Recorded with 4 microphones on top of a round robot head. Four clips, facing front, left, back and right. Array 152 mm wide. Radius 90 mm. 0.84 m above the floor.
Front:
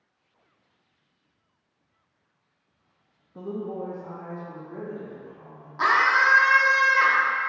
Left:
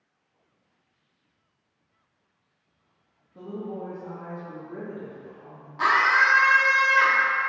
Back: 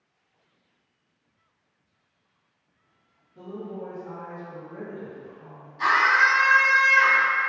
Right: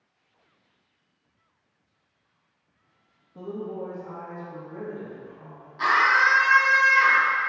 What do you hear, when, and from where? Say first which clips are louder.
3.4 s a woman speaking: right 1 dB, front 4 dB; 10° right, 1.1 m; by 5.7 s 70° left, 3 m
5.8 s a scream: even, even; 30° left, 1.4 m